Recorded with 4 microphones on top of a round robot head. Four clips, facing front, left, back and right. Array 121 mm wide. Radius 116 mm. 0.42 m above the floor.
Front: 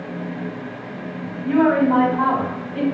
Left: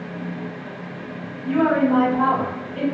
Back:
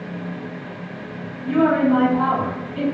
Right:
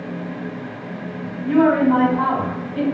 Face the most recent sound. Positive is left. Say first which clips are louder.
# right 3 dB, front 1 dB
turn(degrees=-30)